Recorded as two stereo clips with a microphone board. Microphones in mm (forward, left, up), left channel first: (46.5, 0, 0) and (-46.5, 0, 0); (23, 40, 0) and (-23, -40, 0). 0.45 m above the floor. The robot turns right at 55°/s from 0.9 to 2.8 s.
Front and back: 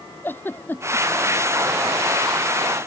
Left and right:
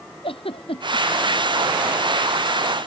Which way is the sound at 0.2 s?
70° left.